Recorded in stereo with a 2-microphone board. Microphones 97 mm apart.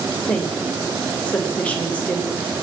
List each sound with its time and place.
0.3 s a woman speaking: 15° left (ahead or behind), 3 m